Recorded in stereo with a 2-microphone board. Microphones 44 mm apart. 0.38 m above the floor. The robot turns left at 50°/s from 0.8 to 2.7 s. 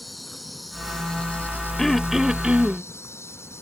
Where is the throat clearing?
10° left; by 2.9 s 35° right.